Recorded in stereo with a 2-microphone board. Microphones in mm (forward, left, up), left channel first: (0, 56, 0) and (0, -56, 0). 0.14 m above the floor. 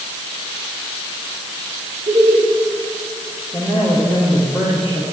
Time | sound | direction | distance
2.1 | laughter | 80° right | 7.5 m
3.5 | a man speaking | 5° right (ahead or behind) | 9 m